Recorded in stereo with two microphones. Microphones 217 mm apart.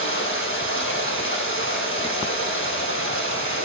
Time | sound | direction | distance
0.0 | running water | 60° left (ahead or behind) | 4 m